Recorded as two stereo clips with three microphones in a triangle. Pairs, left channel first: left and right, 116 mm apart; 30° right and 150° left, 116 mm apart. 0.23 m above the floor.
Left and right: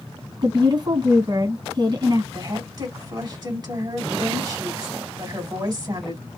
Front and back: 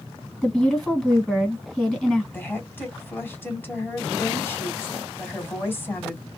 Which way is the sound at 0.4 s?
115° right.